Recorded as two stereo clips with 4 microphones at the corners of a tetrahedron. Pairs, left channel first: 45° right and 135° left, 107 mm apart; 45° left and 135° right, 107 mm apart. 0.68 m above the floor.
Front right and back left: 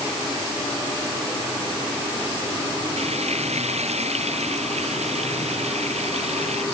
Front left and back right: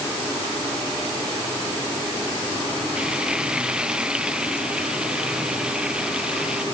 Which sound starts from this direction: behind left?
Frying, at 3.0 s.